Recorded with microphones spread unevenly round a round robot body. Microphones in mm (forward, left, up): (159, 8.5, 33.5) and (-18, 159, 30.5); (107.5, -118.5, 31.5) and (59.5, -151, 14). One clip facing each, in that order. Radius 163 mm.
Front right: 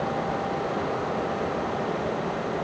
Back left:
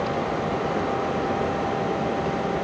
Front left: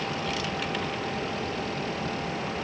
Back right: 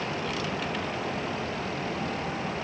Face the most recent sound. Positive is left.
No sound to turn to.